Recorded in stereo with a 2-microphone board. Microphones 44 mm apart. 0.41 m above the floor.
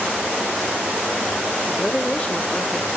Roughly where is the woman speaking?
Left.